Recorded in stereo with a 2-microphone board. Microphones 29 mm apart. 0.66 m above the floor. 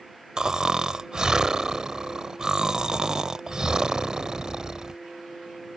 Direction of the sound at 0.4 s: 30° right (ahead or behind).